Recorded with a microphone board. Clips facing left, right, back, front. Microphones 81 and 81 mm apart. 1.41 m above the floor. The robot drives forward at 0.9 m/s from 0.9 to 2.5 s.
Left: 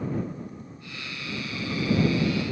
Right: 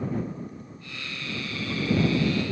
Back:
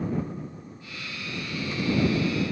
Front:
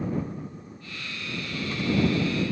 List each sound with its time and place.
Only background noise.